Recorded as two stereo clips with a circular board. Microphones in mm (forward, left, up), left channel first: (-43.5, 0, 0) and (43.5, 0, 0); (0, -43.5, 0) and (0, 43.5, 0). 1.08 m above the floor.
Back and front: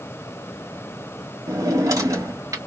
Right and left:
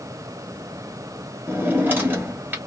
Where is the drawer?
30° left, 1.1 m.